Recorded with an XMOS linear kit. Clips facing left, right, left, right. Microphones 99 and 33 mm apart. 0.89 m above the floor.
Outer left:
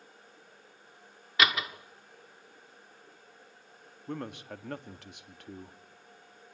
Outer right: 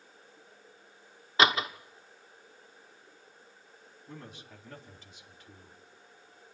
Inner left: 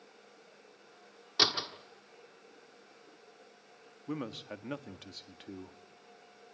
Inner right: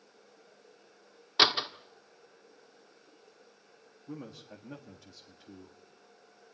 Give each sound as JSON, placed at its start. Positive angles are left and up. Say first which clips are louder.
{"t": 1.4, "sound": "a door slam", "louder": "outer right 3 dB, inner right 4 dB", "side_deg": -30, "distance_m": 1.4}
{"t": 4.1, "sound": "a man speaking", "louder": "outer left 10 dB, inner left 5 dB", "side_deg": 65, "distance_m": 1.7}